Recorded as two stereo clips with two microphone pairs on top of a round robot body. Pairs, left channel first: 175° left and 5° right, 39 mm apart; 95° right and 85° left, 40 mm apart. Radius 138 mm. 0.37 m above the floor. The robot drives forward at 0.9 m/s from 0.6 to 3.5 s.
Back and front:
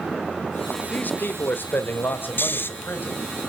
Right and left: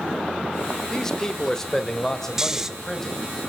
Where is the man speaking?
165° right, 1.6 m; by 3.2 s 175° right, 3.5 m.